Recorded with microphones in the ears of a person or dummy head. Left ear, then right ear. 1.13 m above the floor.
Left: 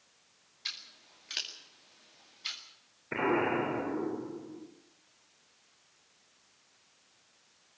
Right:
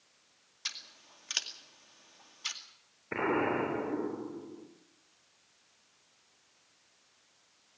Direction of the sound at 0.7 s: 45° right (ahead or behind).